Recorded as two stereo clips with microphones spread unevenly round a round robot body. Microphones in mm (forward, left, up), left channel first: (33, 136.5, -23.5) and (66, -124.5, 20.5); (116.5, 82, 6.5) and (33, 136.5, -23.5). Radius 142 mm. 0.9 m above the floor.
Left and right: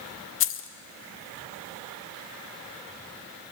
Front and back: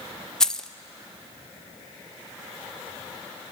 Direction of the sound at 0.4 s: 55° left.